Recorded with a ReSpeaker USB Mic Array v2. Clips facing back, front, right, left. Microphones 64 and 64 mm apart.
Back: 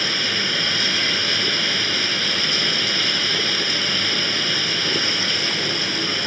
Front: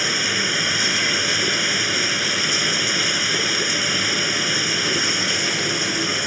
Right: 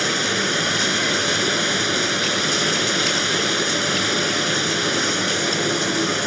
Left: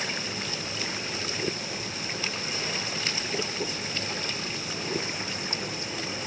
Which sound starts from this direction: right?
Running water, at 0.0 s.